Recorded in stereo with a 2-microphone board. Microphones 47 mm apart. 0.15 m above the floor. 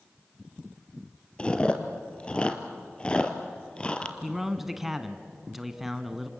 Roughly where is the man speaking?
Centre.